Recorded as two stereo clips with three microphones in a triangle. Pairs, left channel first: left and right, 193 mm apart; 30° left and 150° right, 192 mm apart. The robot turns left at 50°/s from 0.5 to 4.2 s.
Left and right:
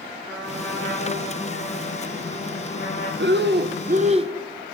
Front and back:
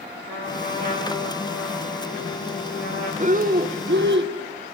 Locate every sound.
0.2 s a trumpet: straight behind, 9 m; by 3.1 s 50° left, 9 m
3.2 s breathing: 100° right, 1.0 m; by 4.3 s 150° right, 1.0 m